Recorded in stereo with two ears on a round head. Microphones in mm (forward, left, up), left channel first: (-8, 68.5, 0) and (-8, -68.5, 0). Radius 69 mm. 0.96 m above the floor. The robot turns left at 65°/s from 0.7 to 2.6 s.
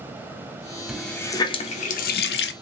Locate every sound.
0.9 s a running tap: 175° right, 0.6 m; by 2.5 s 80° left, 0.6 m